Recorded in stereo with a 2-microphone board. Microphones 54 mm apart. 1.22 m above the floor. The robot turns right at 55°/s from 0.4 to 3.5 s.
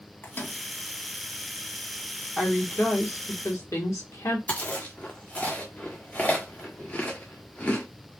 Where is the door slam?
No door slam in this recording.